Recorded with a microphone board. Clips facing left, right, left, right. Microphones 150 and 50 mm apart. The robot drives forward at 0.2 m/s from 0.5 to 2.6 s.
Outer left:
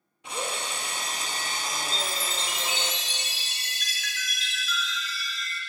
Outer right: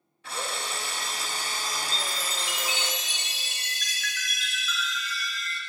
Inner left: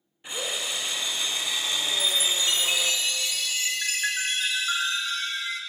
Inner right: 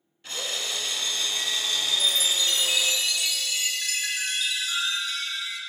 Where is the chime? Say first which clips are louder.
Outer left 2 dB, inner right 2 dB; 40° left (ahead or behind), 1.2 m; by 5.6 s 45° left (ahead or behind), 1.1 m.